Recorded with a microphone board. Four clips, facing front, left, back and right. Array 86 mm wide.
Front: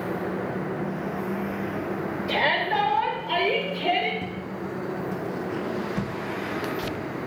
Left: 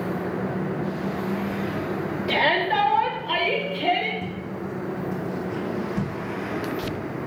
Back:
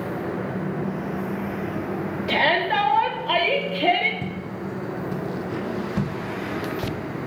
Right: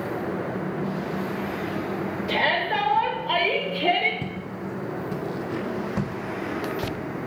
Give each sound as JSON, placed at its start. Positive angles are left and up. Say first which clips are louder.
{"t": 2.3, "sound": "a shout", "louder": "left 3 dB, back 3 dB", "azimuth_deg": 160, "distance_m": 1.9}
{"t": 4.2, "sound": "footsteps", "louder": "left 1 dB, back 1 dB", "azimuth_deg": -110, "distance_m": 1.6}